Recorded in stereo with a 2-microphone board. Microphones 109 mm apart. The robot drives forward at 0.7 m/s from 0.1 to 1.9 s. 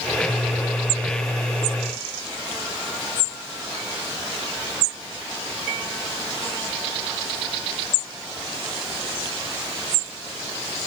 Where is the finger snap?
No finger snap in this recording.